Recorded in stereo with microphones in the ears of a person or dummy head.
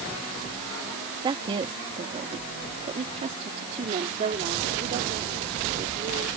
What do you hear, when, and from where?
1.2 s a woman speaking: 25° right (ahead or behind); by 6.3 s 40° right (ahead or behind)